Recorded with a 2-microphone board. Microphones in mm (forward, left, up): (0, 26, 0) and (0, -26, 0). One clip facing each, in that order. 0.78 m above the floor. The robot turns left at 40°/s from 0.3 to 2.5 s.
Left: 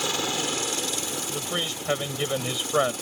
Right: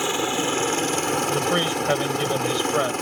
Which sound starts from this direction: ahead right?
A helicopter, at 0.0 s.